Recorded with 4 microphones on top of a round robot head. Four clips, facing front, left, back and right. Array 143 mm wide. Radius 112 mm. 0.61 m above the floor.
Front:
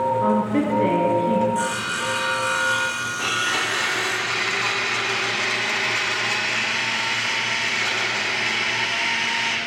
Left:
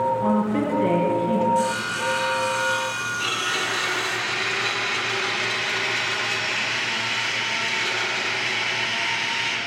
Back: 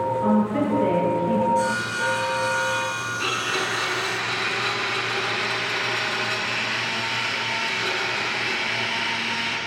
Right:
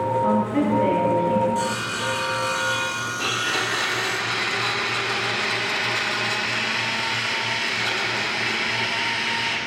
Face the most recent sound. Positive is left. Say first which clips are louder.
# right 3 dB, front 2 dB
turn(degrees=-40)